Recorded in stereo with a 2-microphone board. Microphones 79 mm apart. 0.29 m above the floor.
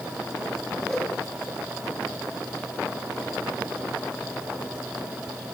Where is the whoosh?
5° left (ahead or behind), 6.5 m.